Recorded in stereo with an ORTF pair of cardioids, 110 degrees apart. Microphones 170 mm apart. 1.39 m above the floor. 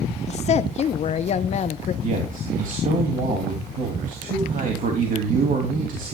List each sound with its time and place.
0.3 s a woman speaking: 40° left, 0.8 m
2.0 s a man speaking: 50° right, 2.5 m